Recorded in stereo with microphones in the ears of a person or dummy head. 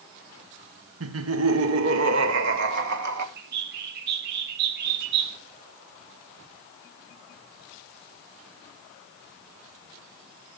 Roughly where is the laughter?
Right.